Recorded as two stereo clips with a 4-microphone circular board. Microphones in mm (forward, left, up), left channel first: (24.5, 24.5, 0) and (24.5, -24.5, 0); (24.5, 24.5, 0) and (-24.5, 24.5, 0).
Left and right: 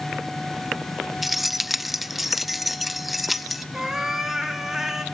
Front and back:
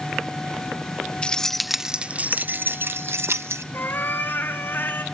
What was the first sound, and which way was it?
Keys jangling, 10° right.